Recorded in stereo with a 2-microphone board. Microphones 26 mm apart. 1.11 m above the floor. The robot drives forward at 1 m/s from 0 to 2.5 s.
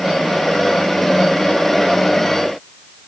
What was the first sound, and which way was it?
Only background noise.